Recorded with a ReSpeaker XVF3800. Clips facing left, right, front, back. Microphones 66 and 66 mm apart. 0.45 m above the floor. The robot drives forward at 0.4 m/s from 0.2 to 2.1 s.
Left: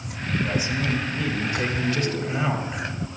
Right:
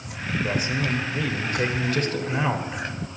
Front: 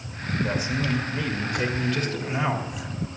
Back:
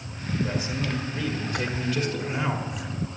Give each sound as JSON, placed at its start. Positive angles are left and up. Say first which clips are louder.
{"t": 0.4, "sound": "a man speaking", "louder": "right 1 dB, front 3 dB", "azimuth_deg": -70, "distance_m": 2.0}